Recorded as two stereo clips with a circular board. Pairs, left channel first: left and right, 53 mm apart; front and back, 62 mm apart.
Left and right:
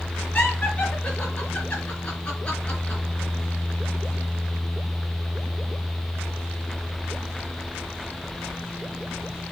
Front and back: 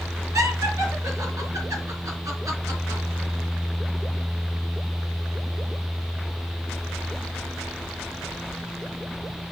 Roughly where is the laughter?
Behind left.